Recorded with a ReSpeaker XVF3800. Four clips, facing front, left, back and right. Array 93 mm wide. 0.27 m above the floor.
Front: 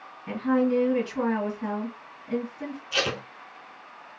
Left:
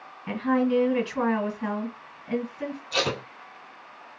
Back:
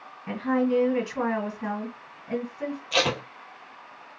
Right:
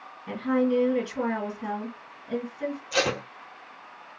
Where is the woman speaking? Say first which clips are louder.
Left 1 dB, front 1 dB; 115° left, 1.7 m.